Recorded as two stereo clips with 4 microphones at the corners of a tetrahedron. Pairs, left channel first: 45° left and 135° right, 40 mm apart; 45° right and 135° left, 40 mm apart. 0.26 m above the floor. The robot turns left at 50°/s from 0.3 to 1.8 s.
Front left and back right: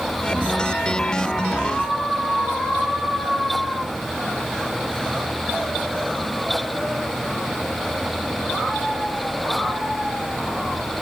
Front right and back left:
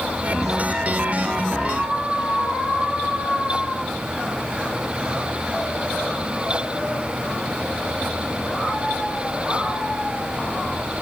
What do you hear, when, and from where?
Only background noise.